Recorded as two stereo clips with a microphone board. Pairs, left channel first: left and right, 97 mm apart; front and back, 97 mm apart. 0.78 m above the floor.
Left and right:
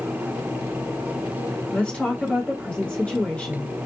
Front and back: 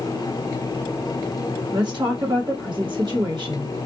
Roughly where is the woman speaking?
Behind.